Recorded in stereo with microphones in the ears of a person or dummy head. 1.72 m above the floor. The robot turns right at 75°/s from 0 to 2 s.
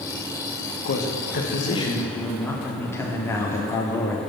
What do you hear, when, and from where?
0.8 s a man speaking: 75° left, 1.2 m; by 4.2 s 160° left, 1.2 m